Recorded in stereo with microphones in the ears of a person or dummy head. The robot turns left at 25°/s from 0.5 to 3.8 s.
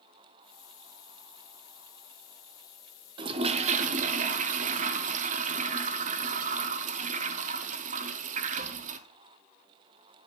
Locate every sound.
3.2 s a toilet flushing: 30° right (ahead or behind), 0.6 m; by 9.0 s 45° right (ahead or behind), 0.6 m